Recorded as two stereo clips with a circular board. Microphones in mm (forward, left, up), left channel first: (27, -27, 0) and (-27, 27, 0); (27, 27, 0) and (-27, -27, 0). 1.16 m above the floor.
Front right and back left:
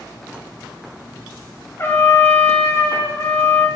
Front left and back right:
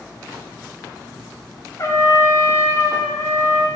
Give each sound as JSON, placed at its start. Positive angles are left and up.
{"t": 1.8, "sound": "a trumpet", "azimuth_deg": 5, "distance_m": 0.5}